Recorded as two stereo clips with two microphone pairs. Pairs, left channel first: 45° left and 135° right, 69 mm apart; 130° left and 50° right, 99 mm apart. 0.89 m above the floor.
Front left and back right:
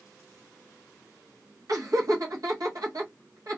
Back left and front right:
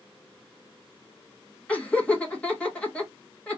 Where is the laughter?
155° right, 1.4 m.